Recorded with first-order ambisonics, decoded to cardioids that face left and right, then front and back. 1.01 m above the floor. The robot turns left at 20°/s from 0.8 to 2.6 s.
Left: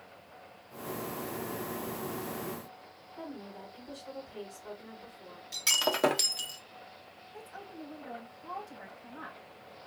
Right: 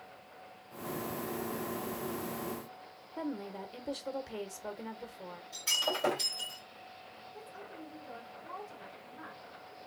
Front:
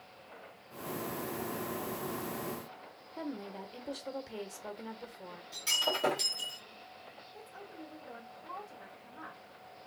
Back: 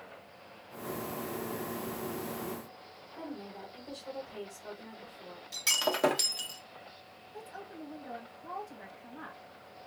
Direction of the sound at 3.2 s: 60° right.